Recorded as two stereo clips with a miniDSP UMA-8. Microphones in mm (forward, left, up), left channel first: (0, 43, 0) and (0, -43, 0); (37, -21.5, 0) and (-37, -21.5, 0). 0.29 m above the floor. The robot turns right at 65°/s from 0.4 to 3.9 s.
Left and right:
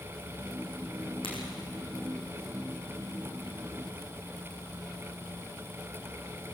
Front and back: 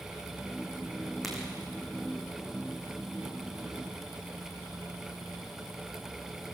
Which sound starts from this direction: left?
A crack, at 1.2 s.